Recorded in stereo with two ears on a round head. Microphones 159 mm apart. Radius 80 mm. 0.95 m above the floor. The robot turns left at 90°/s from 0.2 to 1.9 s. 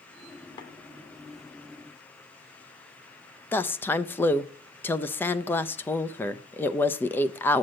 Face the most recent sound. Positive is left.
turn(degrees=10)  # may be behind; listen again after turning